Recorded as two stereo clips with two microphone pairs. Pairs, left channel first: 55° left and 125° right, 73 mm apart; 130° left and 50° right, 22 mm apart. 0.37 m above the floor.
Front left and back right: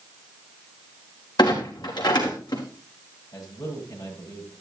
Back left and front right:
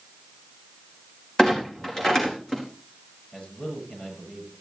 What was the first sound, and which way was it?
A clunk, 65° left.